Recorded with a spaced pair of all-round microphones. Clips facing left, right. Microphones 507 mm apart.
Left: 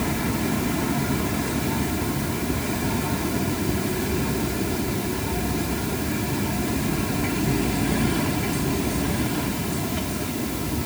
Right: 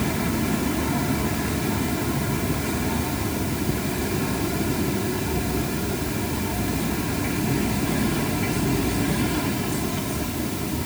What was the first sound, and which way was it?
Only background noise.